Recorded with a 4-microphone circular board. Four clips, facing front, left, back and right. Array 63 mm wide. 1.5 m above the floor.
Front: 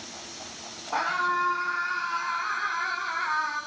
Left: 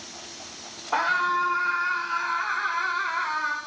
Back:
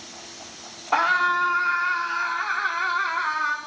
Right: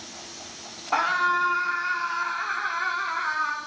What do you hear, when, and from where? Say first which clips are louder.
0.9 s a scream: right 1 dB, back 6 dB; 160° right, 4.5 m; by 3.6 s 175° right, 5.5 m